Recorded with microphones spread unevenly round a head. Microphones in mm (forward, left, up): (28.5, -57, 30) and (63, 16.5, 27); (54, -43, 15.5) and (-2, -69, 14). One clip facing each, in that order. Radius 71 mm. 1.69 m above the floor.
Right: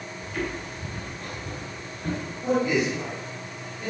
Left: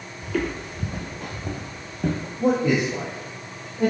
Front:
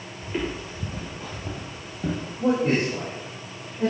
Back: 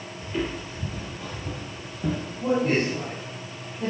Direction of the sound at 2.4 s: 100° left.